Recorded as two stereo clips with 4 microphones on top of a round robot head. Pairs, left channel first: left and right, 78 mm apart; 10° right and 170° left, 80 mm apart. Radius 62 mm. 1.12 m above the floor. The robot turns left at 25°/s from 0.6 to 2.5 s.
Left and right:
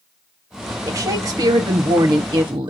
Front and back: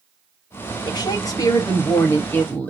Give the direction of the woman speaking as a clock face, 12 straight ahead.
1 o'clock.